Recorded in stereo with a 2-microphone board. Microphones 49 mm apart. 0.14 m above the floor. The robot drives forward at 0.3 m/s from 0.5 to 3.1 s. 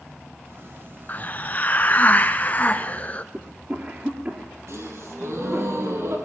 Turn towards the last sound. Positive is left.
turn(degrees=-60)  # may be behind; listen again after turning